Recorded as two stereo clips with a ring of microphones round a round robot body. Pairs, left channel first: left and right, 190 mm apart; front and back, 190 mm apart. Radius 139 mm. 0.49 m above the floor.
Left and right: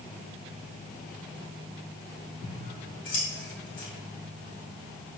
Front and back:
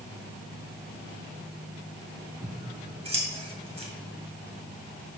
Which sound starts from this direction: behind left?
Scissors, at 2.4 s.